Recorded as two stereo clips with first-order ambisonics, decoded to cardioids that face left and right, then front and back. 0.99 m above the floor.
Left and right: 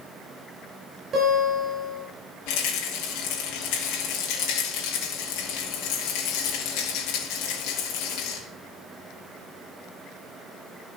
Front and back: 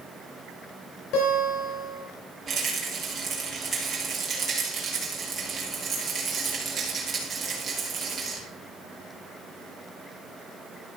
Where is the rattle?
110° left, 3 m.